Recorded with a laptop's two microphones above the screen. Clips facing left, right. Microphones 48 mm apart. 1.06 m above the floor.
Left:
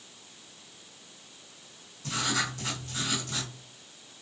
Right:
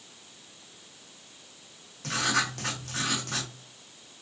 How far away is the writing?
About 1.0 m.